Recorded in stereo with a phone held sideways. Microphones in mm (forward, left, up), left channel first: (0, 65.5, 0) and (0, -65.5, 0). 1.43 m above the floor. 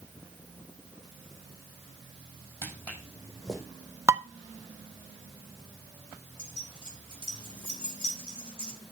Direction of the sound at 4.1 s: 20° right (ahead or behind).